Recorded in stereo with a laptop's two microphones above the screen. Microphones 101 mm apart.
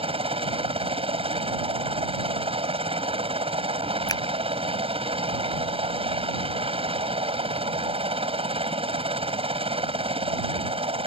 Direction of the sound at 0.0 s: 65° right (ahead or behind).